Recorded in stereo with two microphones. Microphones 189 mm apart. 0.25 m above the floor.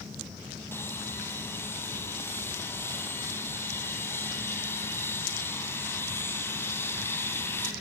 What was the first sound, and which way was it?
Sawing, 10° left (ahead or behind).